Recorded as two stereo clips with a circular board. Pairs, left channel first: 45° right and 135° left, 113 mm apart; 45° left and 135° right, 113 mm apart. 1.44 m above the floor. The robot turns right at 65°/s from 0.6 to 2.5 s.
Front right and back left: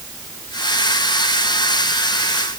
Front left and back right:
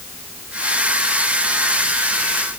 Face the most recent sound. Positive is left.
No sound to turn to.